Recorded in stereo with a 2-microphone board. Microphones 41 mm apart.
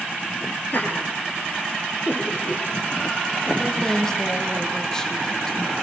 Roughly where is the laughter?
Left.